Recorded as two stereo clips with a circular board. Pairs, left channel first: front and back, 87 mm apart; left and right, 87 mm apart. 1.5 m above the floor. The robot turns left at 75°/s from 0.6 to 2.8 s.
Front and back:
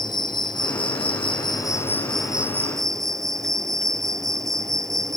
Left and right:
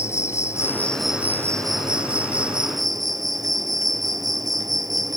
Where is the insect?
35° left; by 5.2 s 130° right.